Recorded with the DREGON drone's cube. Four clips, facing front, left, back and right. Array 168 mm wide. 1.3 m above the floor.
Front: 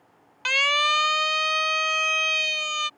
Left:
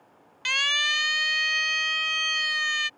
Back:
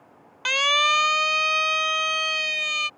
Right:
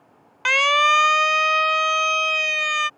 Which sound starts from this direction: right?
A siren, at 0.5 s.